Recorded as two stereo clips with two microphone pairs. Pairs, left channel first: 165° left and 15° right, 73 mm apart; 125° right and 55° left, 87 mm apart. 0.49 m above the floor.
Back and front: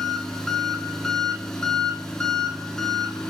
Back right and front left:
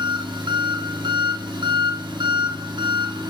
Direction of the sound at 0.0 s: 85° left.